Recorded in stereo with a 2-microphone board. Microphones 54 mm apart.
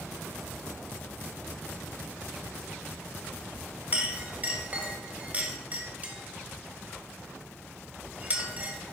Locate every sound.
3.9 s a clink: 35° right (ahead or behind), 1.2 m